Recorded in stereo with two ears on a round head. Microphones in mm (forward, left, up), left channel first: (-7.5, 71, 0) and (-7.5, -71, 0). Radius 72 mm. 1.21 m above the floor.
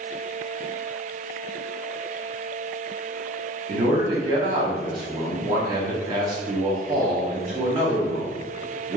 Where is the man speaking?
25° right (ahead or behind), 0.6 m.